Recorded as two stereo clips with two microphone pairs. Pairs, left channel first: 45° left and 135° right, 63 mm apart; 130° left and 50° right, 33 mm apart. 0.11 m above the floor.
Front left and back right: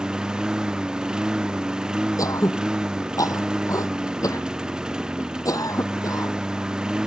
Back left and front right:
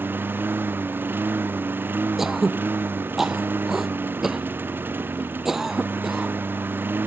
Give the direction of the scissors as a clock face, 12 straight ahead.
No scissors in this recording.